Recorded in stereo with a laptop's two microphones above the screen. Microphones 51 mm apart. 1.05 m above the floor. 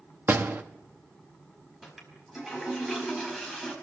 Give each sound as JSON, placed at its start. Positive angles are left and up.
{"t": 0.3, "sound": "a door slam", "side_deg": -40, "distance_m": 1.2}
{"t": 1.8, "sound": "a toilet flushing", "side_deg": -5, "distance_m": 5.0}